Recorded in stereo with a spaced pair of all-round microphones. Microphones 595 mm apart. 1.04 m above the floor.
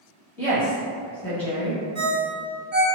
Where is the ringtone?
85° right, 0.8 m.